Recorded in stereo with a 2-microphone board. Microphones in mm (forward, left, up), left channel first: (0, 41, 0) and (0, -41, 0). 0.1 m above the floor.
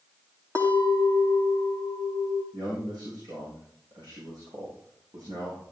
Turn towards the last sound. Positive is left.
turn(degrees=-65)  # may be behind; listen again after turning